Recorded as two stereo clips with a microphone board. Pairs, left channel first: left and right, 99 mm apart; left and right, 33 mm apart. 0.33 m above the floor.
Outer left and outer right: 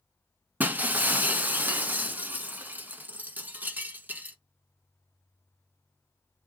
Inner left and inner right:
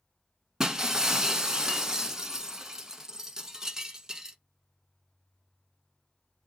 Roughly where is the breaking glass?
Centre.